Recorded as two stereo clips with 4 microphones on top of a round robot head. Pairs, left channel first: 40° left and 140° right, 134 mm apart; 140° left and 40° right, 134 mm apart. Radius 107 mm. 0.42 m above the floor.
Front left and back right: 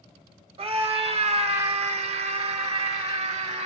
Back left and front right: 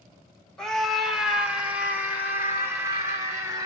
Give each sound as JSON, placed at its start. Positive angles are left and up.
{"t": 0.6, "sound": "a scream", "azimuth_deg": -135, "distance_m": 1.5}